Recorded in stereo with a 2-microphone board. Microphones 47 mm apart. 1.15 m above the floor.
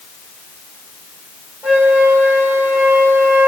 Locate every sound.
1.6 s a flute: 70° right (ahead or behind), 2.5 m